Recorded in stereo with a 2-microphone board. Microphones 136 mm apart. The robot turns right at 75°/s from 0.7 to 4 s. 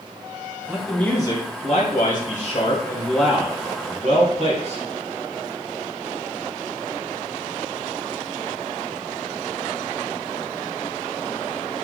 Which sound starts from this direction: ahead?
A man speaking, at 0.7 s.